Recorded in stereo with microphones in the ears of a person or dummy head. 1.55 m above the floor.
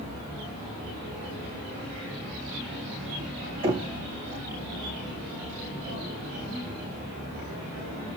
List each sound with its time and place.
3.6 s knocking: 20° right (ahead or behind), 1.5 m